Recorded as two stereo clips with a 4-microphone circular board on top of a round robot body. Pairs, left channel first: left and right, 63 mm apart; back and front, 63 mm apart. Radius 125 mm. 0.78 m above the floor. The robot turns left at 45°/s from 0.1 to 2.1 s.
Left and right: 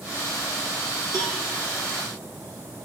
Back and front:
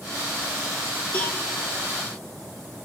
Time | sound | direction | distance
1.1 | a cowbell | 105° right | 1.1 m